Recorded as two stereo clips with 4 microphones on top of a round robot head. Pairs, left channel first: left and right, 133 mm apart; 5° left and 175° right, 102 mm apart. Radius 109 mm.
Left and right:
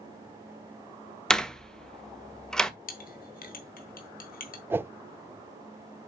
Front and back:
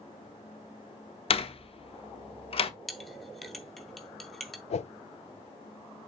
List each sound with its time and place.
1.3 s a door slam: 5° left, 1.4 m
2.9 s a clink: 95° left, 2.5 m
4.7 s a whoosh: 15° right, 0.5 m